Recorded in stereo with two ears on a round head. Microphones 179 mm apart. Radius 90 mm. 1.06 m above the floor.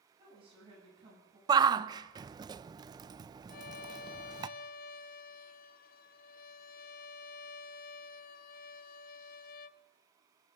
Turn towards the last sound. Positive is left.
turn(degrees=50)  # may be behind; listen again after turning